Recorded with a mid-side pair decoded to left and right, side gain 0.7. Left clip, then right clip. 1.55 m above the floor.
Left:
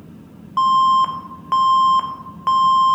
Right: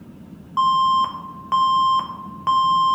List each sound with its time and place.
0.6 s an alarm: 5° left, 1.4 m